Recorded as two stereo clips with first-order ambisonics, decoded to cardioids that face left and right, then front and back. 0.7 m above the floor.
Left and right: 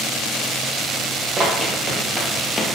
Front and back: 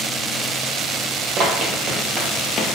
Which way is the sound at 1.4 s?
145° right.